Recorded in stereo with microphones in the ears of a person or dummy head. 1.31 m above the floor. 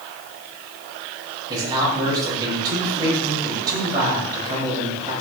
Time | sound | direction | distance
1.5 | a man speaking | 20° right (ahead or behind) | 7 m